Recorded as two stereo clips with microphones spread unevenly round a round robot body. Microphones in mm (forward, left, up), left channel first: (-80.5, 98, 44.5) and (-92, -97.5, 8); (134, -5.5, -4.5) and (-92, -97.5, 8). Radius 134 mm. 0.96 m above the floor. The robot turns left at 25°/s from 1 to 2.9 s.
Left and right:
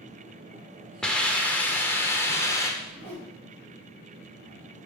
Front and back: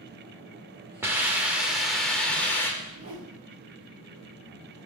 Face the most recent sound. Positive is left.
turn(degrees=165)